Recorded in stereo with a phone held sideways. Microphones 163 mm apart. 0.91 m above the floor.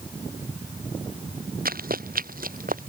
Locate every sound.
1.6 s running footsteps: 65° right (ahead or behind); by 2.9 s 60° right (ahead or behind)